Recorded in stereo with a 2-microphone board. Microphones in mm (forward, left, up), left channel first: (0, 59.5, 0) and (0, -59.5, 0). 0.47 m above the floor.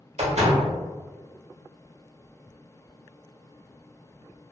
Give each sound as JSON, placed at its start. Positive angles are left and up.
{"t": 0.2, "sound": "a door slam", "side_deg": -65, "distance_m": 1.1}